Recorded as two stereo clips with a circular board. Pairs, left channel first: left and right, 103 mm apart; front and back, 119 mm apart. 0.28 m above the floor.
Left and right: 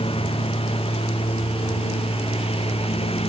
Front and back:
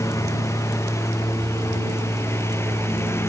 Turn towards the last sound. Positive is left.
turn(degrees=70)